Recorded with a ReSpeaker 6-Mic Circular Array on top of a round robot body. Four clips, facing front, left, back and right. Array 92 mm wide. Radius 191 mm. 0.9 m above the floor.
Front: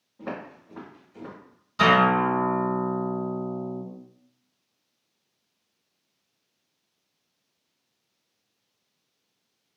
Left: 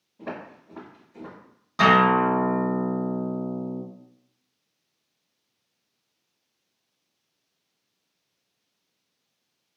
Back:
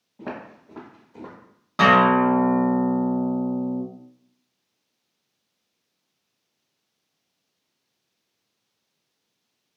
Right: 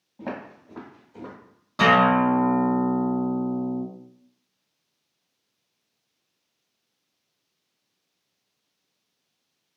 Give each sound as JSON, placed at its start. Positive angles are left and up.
{"t": 0.2, "sound": "footsteps", "azimuth_deg": -130, "distance_m": 1.1}
{"t": 1.8, "sound": "a guitar", "azimuth_deg": 170, "distance_m": 1.3}